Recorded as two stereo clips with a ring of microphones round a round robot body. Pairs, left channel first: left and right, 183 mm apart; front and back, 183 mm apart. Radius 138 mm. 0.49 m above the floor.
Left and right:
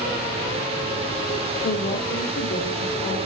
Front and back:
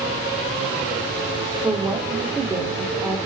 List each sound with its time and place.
1.6 s a woman speaking: 100° left, 1.4 m